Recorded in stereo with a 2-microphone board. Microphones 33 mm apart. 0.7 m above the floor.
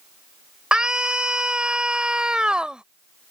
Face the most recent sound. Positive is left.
turn(degrees=-25)  # may be behind; listen again after turning